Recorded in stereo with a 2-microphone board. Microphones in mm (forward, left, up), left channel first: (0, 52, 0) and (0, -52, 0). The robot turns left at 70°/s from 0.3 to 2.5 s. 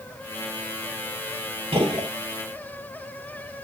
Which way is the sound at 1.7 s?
55° right (ahead or behind).